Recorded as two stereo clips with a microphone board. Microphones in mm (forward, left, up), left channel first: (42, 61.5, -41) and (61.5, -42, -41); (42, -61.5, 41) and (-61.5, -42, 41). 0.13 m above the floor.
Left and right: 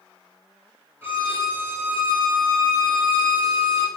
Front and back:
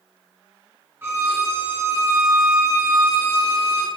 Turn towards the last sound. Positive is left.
turn(degrees=-135)